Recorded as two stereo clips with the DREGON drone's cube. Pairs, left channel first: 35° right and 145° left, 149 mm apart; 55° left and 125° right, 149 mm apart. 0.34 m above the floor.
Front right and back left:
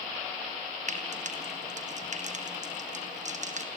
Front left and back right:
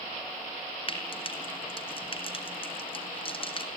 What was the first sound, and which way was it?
Frying, 110° left.